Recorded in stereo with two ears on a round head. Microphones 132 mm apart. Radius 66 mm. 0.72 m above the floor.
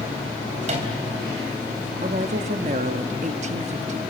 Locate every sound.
0.6 s a microwave: 50° right (ahead or behind), 3.5 m
2.0 s a woman speaking: 50° right (ahead or behind), 1.0 m